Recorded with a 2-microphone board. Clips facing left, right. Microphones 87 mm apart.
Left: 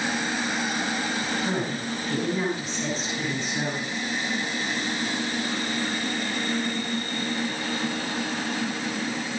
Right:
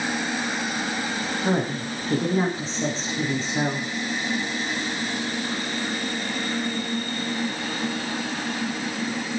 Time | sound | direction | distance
1.4 | a woman speaking | 35° right (ahead or behind) | 7 m